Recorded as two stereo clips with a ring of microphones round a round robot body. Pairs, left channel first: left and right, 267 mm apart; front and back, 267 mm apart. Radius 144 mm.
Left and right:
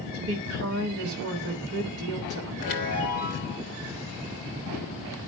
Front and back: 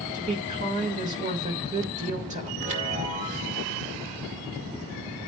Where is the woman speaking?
125° right, 1.4 m.